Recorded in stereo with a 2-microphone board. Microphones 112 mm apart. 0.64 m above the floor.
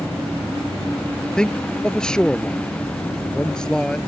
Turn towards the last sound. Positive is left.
turn(degrees=5)  # may be behind; listen again after turning